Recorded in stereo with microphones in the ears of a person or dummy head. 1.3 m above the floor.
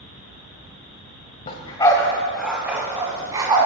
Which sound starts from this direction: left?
A dog barking, at 1.5 s.